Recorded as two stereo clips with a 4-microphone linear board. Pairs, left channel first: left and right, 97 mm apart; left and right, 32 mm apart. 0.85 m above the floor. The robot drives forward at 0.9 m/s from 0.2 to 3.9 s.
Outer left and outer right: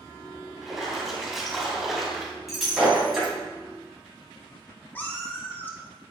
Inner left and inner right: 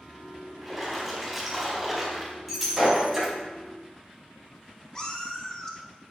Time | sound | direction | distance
0.6 | a splash | centre (ahead or behind) | 4 m
2.5 | breaking glass | centre (ahead or behind) | 3.5 m
5.0 | a cat meowing | 20° left (ahead or behind) | 1.2 m